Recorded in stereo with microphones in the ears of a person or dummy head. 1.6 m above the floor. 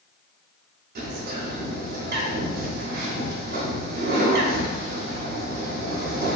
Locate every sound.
0.9 s a bird: 55° right (ahead or behind), 0.6 m